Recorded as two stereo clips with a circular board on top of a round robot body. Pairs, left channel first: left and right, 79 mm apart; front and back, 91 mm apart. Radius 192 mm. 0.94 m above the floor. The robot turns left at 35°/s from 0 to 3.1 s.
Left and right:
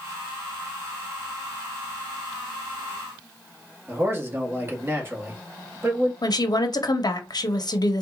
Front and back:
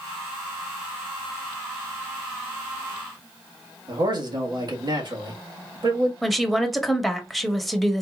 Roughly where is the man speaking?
Behind right.